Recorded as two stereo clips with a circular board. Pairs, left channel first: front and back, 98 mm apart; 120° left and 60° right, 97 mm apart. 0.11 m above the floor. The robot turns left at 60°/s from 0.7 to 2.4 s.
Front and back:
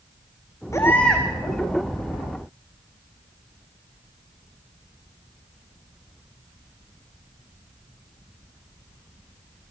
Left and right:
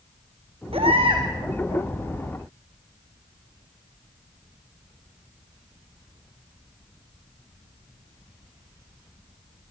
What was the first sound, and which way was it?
A baby crying, 55° right.